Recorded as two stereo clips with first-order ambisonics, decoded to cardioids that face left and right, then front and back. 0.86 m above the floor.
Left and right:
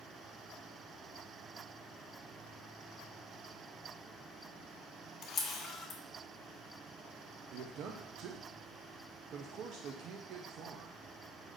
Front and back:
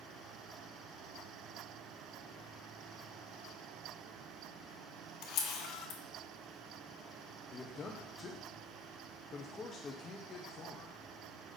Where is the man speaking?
65° right, 0.5 m.